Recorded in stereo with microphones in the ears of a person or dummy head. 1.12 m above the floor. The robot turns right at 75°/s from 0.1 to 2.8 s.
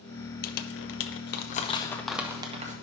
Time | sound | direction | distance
0.4 | crumpling | 45° left (ahead or behind) | 0.7 m